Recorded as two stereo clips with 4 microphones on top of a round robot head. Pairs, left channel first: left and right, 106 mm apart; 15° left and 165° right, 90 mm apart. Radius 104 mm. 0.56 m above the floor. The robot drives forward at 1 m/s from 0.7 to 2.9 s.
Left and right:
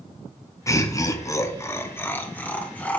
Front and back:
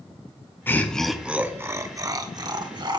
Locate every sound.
0.7 s laughter: 65° left, 1.1 m; by 3.0 s 165° left, 2 m